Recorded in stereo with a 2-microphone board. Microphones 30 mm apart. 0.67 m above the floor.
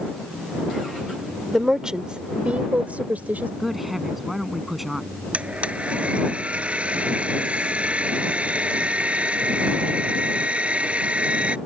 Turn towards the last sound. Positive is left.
turn(degrees=-40)  # may be behind; listen again after turning